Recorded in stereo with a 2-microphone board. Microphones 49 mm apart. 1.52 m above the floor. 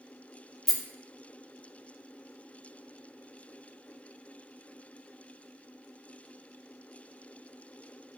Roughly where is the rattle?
Centre.